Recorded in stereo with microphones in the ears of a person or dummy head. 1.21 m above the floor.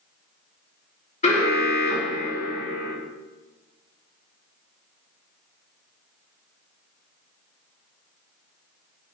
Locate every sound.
1.2 s an alarm: 30° left (ahead or behind), 3 m